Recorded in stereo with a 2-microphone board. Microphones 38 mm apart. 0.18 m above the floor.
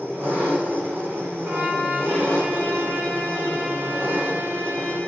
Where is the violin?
70° right (ahead or behind), 4 m.